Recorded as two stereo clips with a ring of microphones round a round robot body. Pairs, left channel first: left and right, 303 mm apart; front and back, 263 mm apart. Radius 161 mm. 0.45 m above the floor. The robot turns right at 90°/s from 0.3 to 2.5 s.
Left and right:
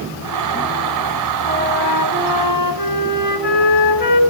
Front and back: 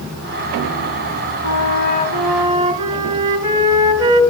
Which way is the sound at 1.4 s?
10° left.